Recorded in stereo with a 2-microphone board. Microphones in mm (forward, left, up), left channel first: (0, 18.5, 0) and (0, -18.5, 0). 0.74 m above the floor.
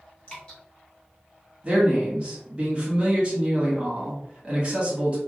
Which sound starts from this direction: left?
Dripping, at 0.3 s.